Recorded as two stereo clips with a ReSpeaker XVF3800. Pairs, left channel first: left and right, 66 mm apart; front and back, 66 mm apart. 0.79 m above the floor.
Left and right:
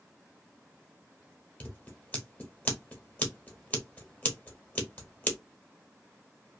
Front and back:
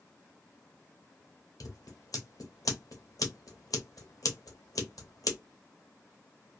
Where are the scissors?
25° left, 0.9 m.